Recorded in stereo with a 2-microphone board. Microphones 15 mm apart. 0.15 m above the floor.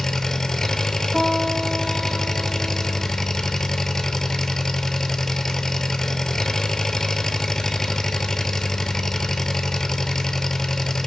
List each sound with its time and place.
0.0 s an engine running: 35° left (ahead or behind), 0.7 m
1.1 s a guitar: 60° right (ahead or behind), 2.5 m